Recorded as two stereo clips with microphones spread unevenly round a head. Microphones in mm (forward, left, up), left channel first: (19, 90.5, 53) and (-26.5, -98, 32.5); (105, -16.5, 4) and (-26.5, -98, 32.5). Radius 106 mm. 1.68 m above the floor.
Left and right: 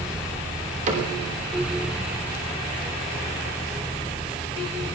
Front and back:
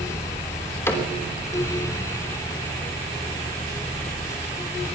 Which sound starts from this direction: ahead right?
A cupboard door, at 0.9 s.